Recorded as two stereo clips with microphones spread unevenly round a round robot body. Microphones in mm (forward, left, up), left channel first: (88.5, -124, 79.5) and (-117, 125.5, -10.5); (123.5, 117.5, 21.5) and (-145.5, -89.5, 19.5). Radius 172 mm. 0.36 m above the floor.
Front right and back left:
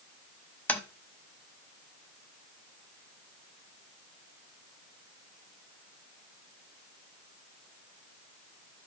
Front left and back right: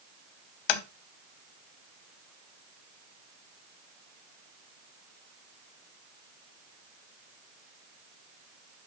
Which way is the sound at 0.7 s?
40° left.